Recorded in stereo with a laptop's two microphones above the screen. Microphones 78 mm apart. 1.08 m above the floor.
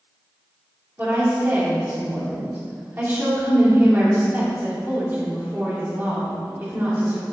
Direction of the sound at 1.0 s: 30° right (ahead or behind).